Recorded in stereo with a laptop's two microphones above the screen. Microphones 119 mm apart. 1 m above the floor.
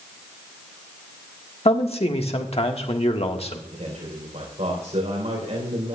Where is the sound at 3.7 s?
70° right (ahead or behind), 3.5 m.